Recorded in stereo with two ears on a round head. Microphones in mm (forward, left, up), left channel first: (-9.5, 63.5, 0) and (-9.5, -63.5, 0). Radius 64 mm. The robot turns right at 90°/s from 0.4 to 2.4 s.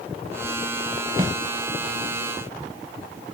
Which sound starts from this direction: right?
A snare drum, at 1.2 s.